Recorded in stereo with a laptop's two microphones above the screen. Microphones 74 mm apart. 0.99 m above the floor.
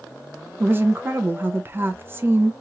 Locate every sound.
0.6 s a woman speaking: 30° right (ahead or behind), 0.5 m